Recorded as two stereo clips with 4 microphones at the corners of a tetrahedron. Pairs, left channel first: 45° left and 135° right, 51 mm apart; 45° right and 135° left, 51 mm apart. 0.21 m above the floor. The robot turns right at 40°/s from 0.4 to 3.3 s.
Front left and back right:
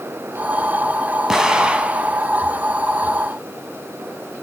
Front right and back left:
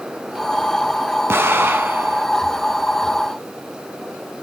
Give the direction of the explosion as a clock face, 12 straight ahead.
7 o'clock.